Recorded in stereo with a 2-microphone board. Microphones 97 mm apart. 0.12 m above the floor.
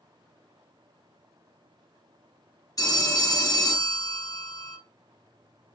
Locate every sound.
2.8 s a phone ringing: 40° left (ahead or behind), 1.2 m